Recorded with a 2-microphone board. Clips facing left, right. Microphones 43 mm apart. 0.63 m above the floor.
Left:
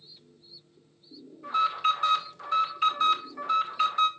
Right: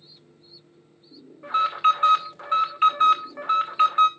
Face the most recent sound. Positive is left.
turn(degrees=-40)  # may be behind; listen again after turning